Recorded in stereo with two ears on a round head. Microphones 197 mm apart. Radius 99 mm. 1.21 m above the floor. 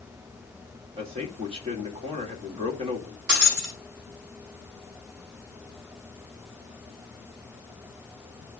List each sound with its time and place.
1.0 s a man speaking: 25° right (ahead or behind), 1.9 m
3.3 s breaking glass: 50° right (ahead or behind), 4 m